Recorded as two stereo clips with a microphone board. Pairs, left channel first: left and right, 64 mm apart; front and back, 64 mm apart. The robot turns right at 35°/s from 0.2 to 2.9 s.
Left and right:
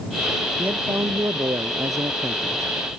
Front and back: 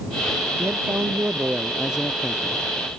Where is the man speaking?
145° right; by 2.6 s 75° right.